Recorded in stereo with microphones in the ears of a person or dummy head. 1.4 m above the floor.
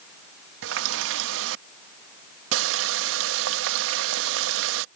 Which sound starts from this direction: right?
A running tap, at 0.6 s.